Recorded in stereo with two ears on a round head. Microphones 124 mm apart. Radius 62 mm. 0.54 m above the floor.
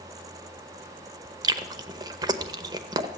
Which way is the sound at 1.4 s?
30° right (ahead or behind).